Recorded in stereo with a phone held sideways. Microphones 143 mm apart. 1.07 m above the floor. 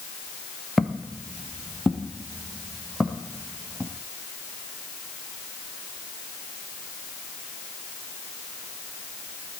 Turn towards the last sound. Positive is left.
turn(degrees=0)  # may be behind; listen again after turning